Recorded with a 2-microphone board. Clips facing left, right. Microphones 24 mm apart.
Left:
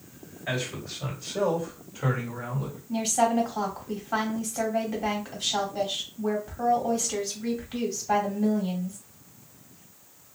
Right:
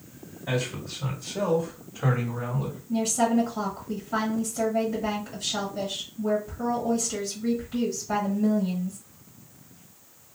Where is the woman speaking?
60° left (ahead or behind), 1.9 m.